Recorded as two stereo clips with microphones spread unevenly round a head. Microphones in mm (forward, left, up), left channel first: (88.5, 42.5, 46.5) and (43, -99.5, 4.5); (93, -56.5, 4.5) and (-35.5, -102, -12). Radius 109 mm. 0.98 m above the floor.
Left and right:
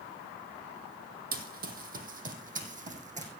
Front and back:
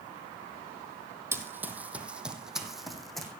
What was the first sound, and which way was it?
Running footsteps, 85° right.